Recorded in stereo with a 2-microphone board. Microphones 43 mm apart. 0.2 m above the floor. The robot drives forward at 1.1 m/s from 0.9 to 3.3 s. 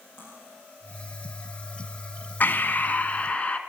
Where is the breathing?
45° left (ahead or behind), 1.2 m; by 3.6 s 30° left (ahead or behind), 1.6 m.